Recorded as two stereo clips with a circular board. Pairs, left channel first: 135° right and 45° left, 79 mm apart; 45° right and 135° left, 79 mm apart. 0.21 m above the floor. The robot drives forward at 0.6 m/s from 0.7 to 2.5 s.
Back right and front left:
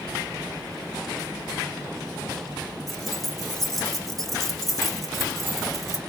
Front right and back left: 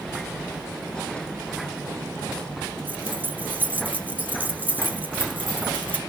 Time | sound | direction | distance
2.9 | keys jangling | 140° left | 1.0 m